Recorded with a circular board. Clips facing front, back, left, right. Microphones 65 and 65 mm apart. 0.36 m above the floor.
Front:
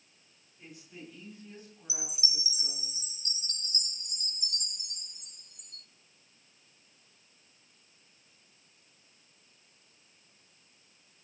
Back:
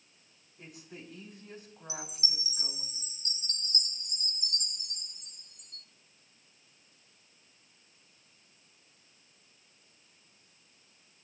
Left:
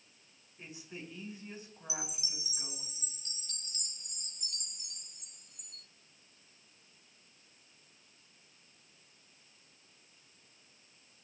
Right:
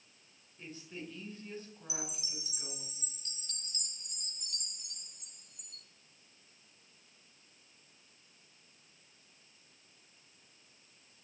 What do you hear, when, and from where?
0.6 s a woman speaking: 160° left, 4.5 m
1.9 s a chime: straight behind, 0.6 m